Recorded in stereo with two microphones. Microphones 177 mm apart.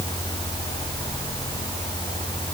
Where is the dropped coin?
No dropped coin in this recording.